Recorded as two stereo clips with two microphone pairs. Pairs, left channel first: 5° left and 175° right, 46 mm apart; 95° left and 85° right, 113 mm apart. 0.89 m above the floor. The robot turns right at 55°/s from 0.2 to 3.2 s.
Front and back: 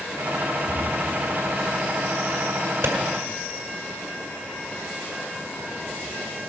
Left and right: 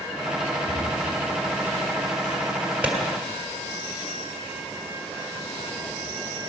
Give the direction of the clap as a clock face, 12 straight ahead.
5 o'clock.